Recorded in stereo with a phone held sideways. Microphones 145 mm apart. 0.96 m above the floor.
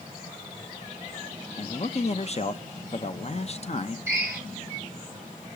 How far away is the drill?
About 6.5 m.